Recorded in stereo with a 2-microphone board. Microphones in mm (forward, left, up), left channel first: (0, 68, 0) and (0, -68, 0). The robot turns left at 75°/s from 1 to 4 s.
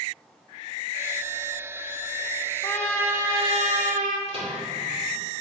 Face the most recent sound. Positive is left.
turn(degrees=-45)  # may be behind; listen again after turning